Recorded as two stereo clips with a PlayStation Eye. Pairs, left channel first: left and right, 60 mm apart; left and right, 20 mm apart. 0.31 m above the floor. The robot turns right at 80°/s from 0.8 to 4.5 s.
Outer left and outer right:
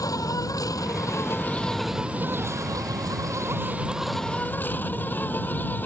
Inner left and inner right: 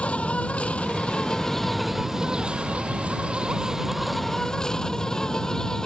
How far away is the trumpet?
No trumpet in this recording.